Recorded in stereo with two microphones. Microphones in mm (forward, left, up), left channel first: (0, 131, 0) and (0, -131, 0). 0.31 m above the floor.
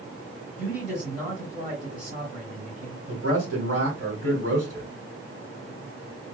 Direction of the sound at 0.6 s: 30° right (ahead or behind).